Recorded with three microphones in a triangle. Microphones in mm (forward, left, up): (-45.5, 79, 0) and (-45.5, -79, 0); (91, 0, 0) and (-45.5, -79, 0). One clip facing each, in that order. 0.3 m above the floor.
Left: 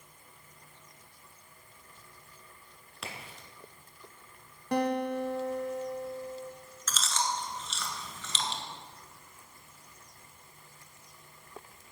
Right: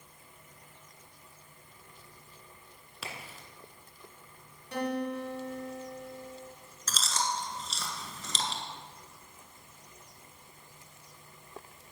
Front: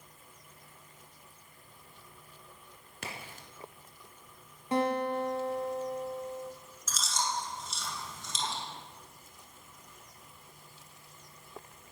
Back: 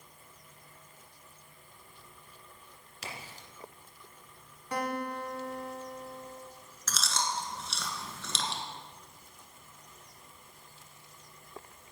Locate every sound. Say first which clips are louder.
3.0 s a crack: even, front 1 dB; straight ahead, 1.9 m
4.7 s a guitar: left 4 dB, front 5 dB; 90° left, 1.2 m
6.9 s chewing: even, even; 140° right, 1.5 m